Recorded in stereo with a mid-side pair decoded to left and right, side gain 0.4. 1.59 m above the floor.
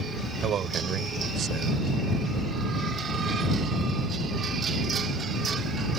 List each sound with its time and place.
0.4 s a man speaking: 70° right